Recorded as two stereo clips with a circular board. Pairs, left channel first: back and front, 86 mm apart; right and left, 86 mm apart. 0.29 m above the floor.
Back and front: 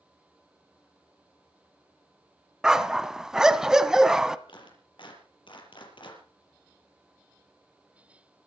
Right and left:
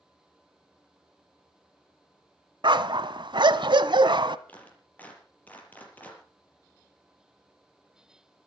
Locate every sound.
2.6 s a dog barking: 80° left, 1.0 m
4.5 s a clap: 160° right, 6.5 m